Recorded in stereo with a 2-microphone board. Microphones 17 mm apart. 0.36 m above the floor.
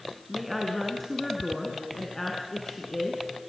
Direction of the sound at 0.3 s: 5° right (ahead or behind).